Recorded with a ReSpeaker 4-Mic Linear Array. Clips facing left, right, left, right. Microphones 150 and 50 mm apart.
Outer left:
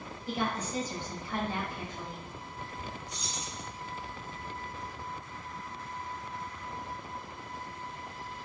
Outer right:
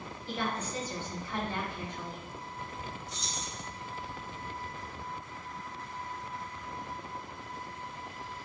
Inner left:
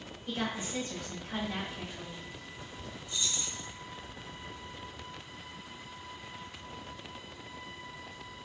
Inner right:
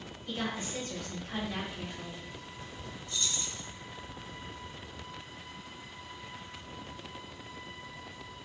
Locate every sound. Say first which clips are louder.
0.3 s a woman speaking: outer left 2 dB, inner left 1 dB; 15° left (ahead or behind), 1.8 m
3.1 s keys jangling: even, even; 15° left (ahead or behind), 1.0 m